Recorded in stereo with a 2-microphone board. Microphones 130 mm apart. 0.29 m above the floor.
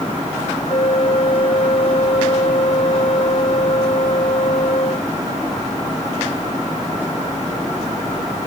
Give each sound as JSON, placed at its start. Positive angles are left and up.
{"t": 0.7, "sound": "a flute", "side_deg": 55}